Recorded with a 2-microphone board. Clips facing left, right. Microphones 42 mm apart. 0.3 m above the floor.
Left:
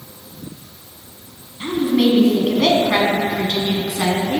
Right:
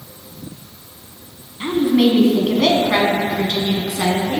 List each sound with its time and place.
1.6 s a woman speaking: 20° right (ahead or behind), 2.5 m; by 4.4 s 15° left (ahead or behind), 3 m